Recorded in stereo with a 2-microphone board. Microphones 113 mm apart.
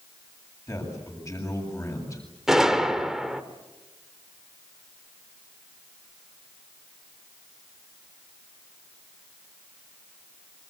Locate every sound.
0.7 s a man speaking: 30° left (ahead or behind), 7.5 m
2.5 s a gunshot: 5° right (ahead or behind), 1.3 m